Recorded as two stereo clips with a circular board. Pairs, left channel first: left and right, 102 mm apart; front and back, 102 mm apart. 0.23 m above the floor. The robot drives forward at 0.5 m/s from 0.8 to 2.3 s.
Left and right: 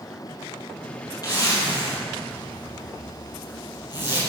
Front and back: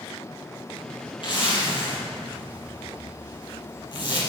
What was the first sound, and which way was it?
A zipper, 40° left.